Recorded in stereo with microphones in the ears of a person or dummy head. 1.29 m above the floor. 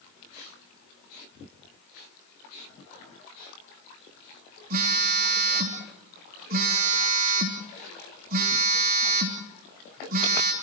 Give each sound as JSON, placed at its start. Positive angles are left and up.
{"t": 4.7, "sound": "a phone buzzing", "side_deg": -45, "distance_m": 3.0}